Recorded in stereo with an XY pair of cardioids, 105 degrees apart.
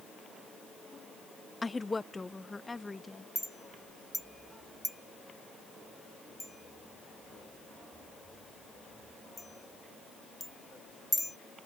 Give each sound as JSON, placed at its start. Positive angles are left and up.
{"t": 1.6, "sound": "a woman speaking", "azimuth_deg": 20}
{"t": 3.4, "sound": "a clink", "azimuth_deg": 5}